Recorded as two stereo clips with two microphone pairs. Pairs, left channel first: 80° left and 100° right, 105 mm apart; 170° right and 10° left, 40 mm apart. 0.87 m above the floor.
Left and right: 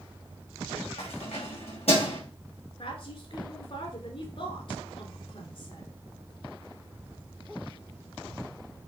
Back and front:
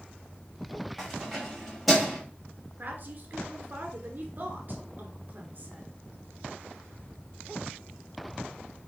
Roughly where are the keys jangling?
Left.